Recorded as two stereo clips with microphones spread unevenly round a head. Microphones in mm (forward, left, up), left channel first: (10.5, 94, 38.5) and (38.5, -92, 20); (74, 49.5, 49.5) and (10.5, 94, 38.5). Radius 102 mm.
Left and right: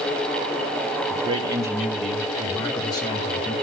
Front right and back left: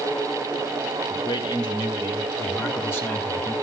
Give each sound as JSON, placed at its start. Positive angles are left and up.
{"t": 1.1, "sound": "a man speaking", "azimuth_deg": -25, "distance_m": 2.0}